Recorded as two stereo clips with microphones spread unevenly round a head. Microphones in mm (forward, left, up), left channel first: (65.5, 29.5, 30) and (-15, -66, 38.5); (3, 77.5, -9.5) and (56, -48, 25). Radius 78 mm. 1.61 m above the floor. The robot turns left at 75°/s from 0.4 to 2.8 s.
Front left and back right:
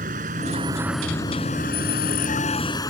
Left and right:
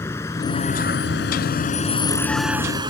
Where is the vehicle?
170° right; by 2.9 s 15° right.